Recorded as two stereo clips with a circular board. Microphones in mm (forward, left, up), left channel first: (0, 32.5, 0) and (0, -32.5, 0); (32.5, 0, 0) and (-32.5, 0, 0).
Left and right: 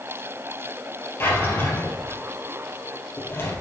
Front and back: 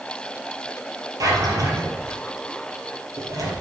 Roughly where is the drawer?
Behind left.